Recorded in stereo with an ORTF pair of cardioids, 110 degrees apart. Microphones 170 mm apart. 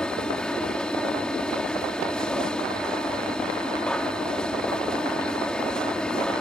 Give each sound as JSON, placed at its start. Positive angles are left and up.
{"t": 0.0, "sound": "a machine running", "azimuth_deg": 5}